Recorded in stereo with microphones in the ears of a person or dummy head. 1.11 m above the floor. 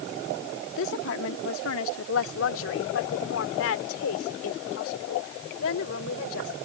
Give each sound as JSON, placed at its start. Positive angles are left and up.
{"t": 0.8, "sound": "a woman speaking", "side_deg": 75}